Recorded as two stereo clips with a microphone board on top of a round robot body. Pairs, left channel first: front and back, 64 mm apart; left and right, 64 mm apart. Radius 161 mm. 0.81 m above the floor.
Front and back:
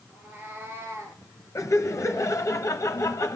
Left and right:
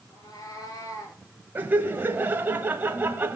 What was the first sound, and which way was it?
A cat meowing, 115° left.